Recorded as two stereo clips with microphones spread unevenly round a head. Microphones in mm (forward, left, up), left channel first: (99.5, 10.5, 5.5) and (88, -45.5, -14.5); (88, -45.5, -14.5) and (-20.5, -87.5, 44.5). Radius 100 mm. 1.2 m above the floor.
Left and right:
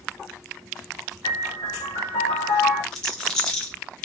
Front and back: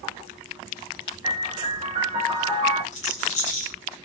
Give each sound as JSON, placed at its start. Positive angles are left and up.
{"t": 1.2, "sound": "a piano", "azimuth_deg": 125, "distance_m": 0.6}
{"t": 2.9, "sound": "a rattle", "azimuth_deg": 70, "distance_m": 0.7}